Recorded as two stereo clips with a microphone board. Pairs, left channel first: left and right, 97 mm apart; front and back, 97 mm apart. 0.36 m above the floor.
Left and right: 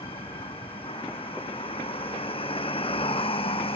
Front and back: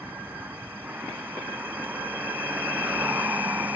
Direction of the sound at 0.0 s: 105° left.